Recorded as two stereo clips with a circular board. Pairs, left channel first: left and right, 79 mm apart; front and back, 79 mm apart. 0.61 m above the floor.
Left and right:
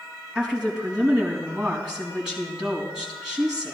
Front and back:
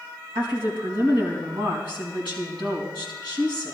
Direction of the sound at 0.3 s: 170° right.